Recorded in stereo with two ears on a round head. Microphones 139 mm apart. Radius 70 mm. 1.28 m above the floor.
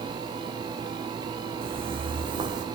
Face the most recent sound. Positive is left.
turn(degrees=-25)  # may be behind; listen again after turning